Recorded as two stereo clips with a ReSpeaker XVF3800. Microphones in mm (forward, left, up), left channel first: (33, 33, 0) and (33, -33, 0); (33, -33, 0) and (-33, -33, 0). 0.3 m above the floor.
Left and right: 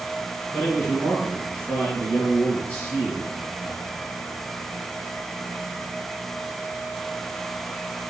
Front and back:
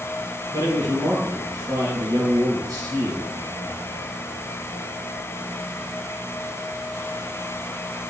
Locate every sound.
0.5 s a man speaking: 160° left, 4.5 m